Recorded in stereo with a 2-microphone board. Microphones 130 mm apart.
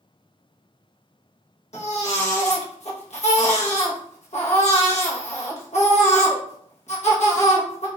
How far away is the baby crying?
About 0.8 m.